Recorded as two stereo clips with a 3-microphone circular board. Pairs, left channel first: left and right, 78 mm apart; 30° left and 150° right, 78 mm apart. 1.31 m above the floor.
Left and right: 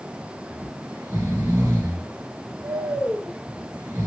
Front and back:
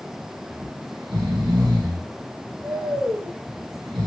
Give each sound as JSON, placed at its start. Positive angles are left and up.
{"t": 0.5, "sound": "snoring", "azimuth_deg": -140, "distance_m": 2.5}